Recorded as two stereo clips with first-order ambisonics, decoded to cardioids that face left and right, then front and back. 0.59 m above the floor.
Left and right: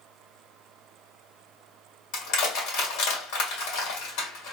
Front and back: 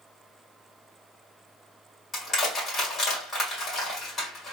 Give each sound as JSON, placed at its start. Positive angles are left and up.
{"t": 2.1, "sound": "crushing", "azimuth_deg": 75, "distance_m": 2.0}